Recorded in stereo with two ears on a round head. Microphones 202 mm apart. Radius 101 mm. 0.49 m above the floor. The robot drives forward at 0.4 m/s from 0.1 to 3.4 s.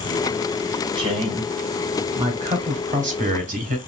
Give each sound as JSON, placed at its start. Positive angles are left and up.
{"t": 0.9, "sound": "a woman speaking", "side_deg": -20, "distance_m": 1.9}